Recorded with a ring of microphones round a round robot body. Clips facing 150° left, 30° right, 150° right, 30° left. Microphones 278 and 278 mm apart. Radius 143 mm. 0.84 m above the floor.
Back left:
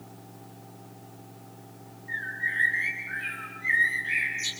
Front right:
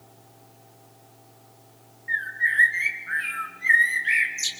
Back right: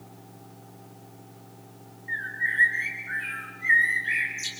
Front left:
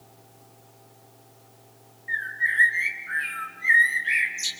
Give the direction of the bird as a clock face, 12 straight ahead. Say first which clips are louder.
Front right 5 dB, front left 2 dB; 1 o'clock.